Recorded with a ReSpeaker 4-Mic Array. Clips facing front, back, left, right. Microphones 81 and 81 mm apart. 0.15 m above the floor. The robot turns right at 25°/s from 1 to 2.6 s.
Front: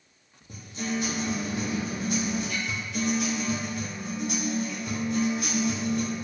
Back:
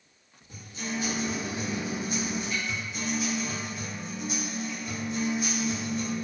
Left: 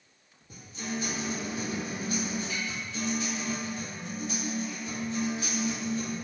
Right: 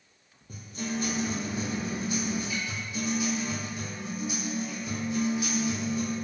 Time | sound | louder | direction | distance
0.5 | a guitar | front 4 dB, right 2 dB | 50° right | 1.9 m